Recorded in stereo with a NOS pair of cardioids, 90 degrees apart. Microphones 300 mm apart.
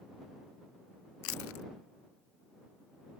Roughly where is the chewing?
Ahead left.